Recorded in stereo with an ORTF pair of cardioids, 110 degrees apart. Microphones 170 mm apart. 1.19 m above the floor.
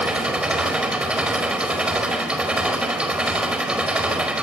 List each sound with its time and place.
0.0 s an engine running: 5° right, 5 m